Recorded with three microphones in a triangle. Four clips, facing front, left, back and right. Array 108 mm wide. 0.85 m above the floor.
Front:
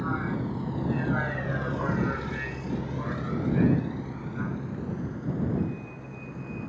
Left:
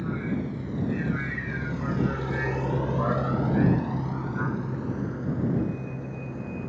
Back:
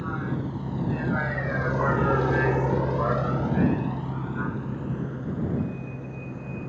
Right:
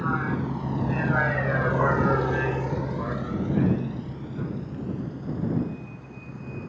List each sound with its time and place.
0.0 s a vehicle: 80° right; by 6.7 s 120° left